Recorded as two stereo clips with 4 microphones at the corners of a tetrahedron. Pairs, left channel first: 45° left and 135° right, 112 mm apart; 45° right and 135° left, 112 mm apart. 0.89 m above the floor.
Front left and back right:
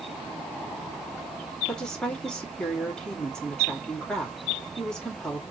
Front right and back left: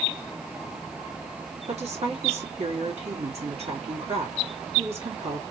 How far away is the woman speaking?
About 2.5 m.